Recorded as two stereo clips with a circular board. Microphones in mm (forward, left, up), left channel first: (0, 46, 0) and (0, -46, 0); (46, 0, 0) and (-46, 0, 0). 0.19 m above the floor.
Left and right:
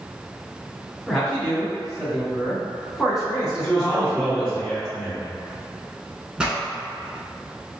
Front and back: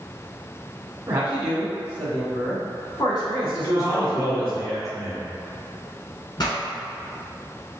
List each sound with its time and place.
1.1 s a man speaking: 165° left, 1.1 m; by 4.6 s 10° right, 3 m
3.6 s a man speaking: 10° left, 1.6 m
6.4 s a pop: 15° right, 0.9 m